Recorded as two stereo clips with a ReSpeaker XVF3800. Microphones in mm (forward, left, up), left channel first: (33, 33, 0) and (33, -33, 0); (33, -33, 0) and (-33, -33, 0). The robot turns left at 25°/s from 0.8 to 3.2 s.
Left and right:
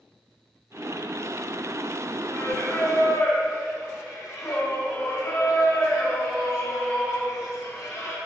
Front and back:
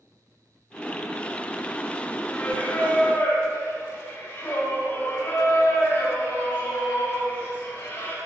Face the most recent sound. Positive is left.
turn(degrees=55)